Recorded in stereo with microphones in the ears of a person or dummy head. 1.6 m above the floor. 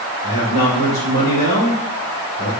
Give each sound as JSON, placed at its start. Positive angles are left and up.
{"t": 0.2, "sound": "a man speaking", "side_deg": 70, "distance_m": 1.8}